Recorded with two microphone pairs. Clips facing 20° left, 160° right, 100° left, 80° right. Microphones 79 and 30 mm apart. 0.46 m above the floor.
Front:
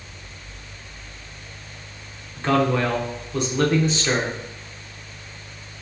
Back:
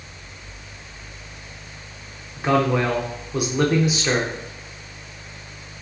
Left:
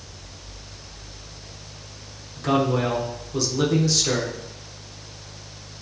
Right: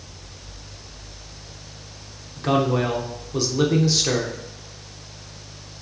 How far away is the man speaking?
About 0.8 m.